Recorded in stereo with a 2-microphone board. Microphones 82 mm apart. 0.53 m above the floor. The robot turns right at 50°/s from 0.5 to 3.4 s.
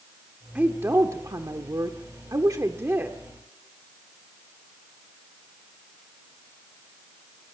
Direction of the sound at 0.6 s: 155° right.